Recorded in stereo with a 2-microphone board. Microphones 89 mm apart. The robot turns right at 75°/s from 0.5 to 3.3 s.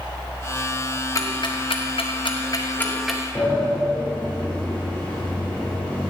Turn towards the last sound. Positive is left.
turn(degrees=15)  # may be behind; listen again after turning